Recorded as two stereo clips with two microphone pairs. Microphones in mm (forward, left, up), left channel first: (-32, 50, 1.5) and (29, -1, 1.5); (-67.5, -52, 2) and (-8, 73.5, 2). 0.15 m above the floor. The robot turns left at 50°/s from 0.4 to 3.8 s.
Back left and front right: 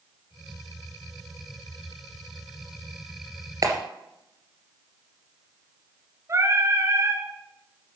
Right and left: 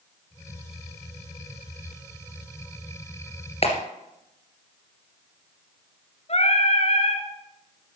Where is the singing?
85° right, 2 m.